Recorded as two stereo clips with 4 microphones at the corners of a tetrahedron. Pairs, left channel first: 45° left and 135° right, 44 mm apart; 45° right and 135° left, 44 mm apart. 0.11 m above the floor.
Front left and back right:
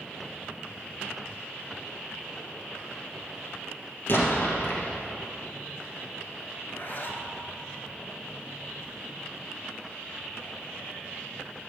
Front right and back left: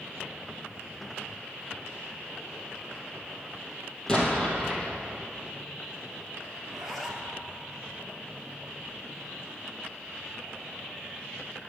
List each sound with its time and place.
4.1 s an explosion: 25° left, 2.5 m
6.6 s a zipper: 45° left, 1.5 m